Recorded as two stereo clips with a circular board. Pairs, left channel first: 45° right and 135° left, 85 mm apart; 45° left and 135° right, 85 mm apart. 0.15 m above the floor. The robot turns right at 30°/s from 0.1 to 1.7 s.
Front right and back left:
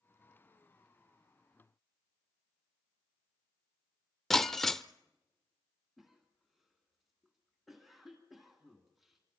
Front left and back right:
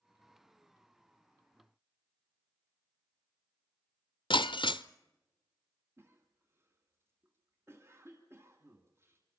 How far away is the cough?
About 1.7 m.